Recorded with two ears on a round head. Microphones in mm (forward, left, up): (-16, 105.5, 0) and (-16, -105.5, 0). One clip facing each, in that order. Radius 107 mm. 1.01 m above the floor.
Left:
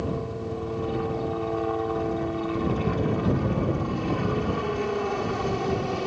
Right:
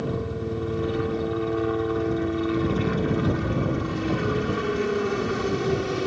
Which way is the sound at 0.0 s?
20° right (ahead or behind).